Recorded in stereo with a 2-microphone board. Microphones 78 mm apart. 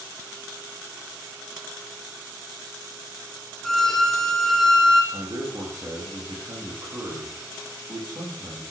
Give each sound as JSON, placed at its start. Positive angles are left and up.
{"t": 3.6, "sound": "a violin", "side_deg": 5, "distance_m": 1.1}
{"t": 5.1, "sound": "a man speaking", "side_deg": -45, "distance_m": 4.5}